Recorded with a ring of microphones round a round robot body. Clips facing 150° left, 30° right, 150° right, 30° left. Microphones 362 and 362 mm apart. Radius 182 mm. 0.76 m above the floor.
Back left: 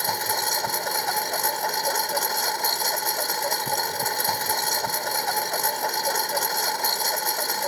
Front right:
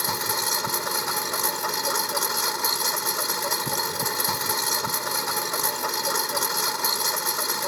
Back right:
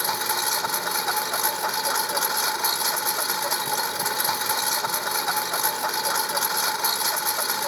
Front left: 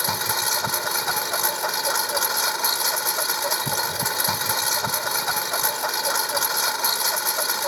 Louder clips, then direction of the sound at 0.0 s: Back left 1 dB, even; 45° left.